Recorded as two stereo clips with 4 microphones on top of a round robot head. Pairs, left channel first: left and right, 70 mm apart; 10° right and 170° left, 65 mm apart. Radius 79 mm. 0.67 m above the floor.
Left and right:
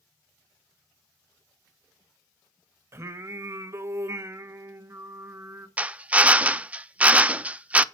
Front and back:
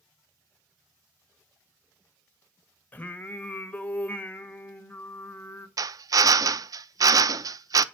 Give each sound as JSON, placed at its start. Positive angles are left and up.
{"t": 2.9, "sound": "singing", "azimuth_deg": -60, "distance_m": 1.3}
{"t": 5.8, "sound": "a drill", "azimuth_deg": -160, "distance_m": 0.6}